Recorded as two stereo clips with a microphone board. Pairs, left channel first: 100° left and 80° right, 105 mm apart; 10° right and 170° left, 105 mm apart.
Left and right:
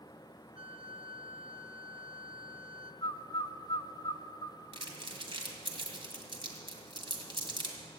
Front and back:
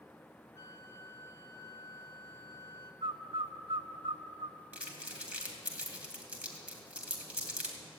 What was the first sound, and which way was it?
A flute, 65° right.